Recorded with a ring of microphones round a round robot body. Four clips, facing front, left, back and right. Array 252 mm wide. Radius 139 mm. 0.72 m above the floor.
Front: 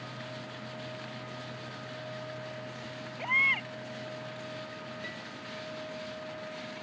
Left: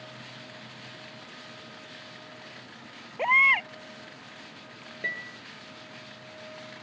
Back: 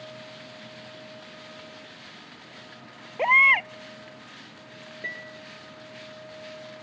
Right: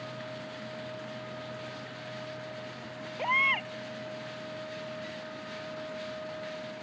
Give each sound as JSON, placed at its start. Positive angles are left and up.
{"t": 3.2, "sound": "a baby crying", "azimuth_deg": 160}
{"t": 5.0, "sound": "a piano", "azimuth_deg": 110}